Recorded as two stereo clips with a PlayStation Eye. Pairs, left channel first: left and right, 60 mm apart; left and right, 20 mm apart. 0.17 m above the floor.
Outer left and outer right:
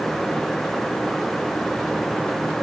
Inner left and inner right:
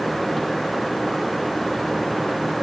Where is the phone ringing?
No phone ringing in this recording.